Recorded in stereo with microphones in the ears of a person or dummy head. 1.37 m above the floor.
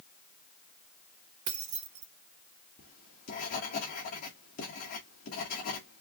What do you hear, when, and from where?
1.5 s keys jangling: 45° right (ahead or behind), 0.6 m
2.8 s writing: 40° left (ahead or behind), 1.6 m